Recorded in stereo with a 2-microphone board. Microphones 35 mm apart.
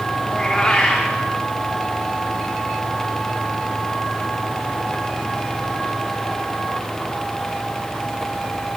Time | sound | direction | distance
0.3 | a cat meowing | 20° left (ahead or behind) | 6 m